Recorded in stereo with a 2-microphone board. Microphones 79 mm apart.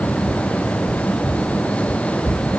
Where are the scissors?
No scissors in this recording.